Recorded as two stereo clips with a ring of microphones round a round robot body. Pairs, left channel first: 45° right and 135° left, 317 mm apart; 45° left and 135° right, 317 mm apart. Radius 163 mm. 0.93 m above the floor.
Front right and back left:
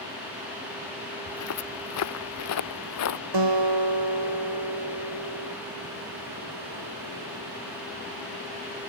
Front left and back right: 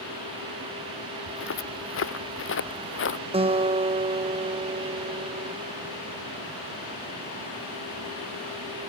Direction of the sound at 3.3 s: 155° left.